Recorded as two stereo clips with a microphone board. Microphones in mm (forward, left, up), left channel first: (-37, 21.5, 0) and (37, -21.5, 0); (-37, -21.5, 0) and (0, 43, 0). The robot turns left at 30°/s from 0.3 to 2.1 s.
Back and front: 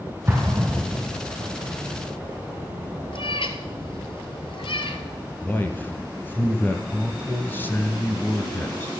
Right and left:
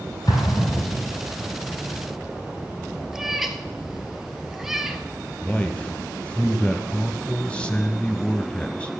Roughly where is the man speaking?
Behind.